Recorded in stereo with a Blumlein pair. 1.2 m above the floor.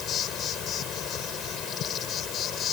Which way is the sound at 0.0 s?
30° left.